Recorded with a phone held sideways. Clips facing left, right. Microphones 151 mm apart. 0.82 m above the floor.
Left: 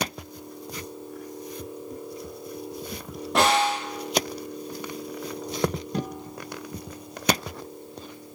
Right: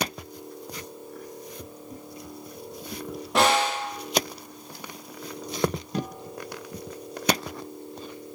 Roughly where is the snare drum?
Centre.